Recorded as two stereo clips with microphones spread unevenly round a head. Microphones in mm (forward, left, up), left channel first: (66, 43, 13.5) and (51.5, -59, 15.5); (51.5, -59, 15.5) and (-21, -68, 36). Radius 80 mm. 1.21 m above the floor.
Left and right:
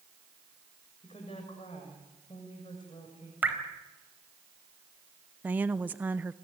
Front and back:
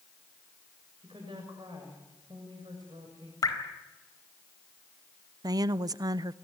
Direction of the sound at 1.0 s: 140° left.